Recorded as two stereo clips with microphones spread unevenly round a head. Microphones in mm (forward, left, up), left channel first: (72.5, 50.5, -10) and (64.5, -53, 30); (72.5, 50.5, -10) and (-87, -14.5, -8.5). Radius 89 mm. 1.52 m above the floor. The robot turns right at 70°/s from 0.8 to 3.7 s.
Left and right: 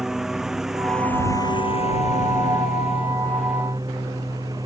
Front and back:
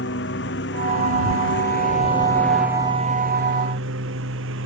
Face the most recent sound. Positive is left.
turn(degrees=-165)